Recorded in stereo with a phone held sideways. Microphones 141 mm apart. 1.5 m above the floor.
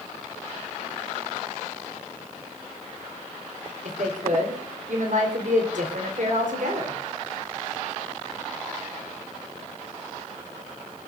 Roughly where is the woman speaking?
Right.